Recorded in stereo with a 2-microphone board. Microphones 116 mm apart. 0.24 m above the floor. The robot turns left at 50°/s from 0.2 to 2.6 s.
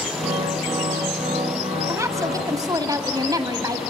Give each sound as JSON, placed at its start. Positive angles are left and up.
{"t": 1.9, "sound": "a woman speaking", "azimuth_deg": -45, "distance_m": 1.6}